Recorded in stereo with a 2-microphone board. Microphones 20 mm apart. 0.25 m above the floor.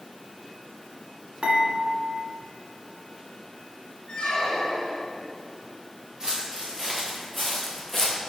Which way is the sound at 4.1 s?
50° left (ahead or behind).